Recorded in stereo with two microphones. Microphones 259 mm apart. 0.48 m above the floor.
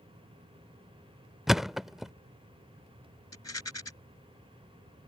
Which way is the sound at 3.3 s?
80° left.